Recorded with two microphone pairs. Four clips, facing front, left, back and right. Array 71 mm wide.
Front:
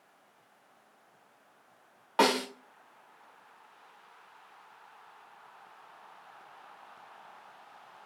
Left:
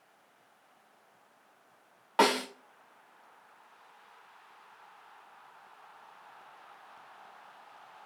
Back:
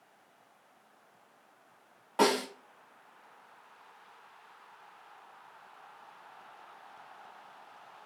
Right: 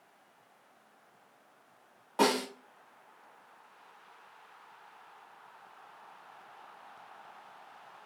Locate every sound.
2.2 s a snare drum: 55° left, 2.5 m